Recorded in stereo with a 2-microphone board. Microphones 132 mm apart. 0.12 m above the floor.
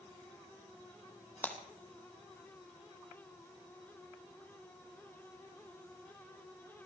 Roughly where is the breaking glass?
Centre.